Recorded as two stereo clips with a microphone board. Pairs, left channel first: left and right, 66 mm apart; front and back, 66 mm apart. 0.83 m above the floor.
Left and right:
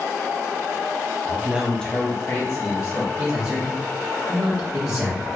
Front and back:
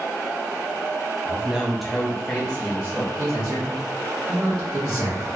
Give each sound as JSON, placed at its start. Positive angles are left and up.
{"t": 1.2, "sound": "a man speaking", "azimuth_deg": -120, "distance_m": 0.7}
{"t": 3.2, "sound": "a man speaking", "azimuth_deg": -135, "distance_m": 0.9}